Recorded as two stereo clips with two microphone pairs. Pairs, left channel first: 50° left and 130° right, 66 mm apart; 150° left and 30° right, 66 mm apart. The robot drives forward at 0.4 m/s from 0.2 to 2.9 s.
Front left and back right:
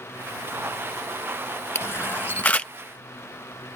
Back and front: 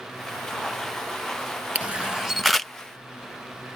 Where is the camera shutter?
25° left; by 2.7 s 90° left.